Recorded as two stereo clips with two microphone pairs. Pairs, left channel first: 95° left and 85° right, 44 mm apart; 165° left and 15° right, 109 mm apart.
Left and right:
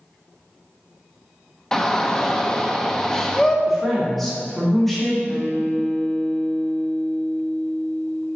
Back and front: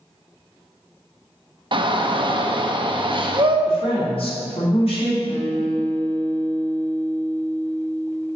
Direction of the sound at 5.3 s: 175° left.